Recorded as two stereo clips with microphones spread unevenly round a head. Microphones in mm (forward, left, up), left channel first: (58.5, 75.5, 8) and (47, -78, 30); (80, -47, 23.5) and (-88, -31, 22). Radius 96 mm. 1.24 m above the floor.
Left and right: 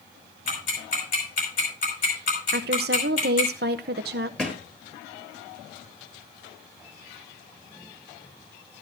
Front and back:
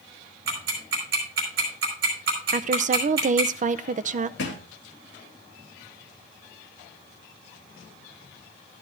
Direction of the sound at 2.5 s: 135° right.